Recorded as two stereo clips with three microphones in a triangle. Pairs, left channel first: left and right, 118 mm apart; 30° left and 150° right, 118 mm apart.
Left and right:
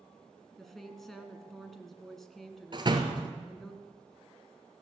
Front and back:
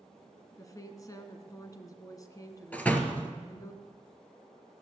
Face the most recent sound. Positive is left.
turn(degrees=-45)